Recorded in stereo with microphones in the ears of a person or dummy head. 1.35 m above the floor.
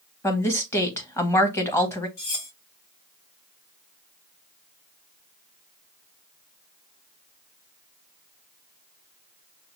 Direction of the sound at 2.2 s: 40° left (ahead or behind).